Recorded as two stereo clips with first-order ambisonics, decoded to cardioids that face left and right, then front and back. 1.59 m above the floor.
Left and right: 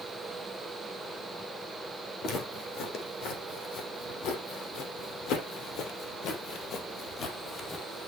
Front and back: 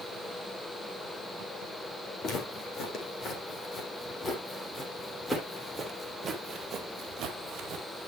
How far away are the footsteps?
About 4.5 m.